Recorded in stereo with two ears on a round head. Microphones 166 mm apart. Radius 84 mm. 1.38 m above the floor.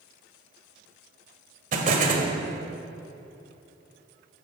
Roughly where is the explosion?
Right.